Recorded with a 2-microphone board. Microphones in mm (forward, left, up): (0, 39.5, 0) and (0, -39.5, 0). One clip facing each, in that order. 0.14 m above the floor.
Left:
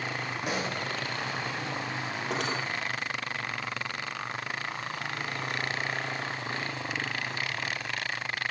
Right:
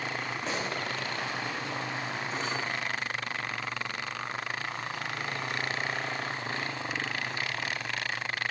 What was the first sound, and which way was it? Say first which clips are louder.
A pop: left 2 dB; 15° left (ahead or behind).